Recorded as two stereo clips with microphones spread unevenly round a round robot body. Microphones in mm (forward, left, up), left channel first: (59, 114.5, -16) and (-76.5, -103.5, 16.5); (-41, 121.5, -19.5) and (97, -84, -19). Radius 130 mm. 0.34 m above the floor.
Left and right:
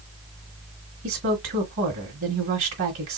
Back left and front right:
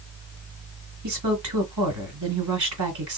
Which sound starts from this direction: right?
A woman speaking, at 1.0 s.